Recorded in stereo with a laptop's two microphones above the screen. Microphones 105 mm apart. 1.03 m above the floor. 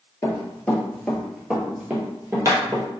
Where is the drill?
No drill in this recording.